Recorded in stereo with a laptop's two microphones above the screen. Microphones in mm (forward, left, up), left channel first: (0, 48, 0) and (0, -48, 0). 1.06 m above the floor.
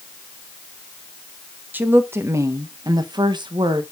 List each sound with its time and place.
1.7 s a woman speaking: 20° right (ahead or behind), 1.2 m; by 3.8 s 60° right (ahead or behind), 1.1 m